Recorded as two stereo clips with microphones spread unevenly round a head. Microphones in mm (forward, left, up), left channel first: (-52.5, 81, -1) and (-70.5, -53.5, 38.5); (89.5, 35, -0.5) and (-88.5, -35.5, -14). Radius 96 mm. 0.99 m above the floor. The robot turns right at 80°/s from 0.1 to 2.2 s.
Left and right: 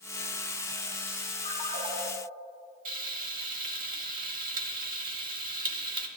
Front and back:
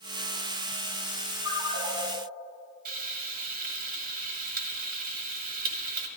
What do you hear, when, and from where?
1.4 s a ringtone: 120° right, 3 m; by 2.0 s 75° right, 3 m
2.9 s frying: 120° right, 1.4 m